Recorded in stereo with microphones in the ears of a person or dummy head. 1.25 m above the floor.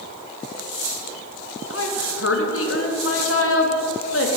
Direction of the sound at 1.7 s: 80° left.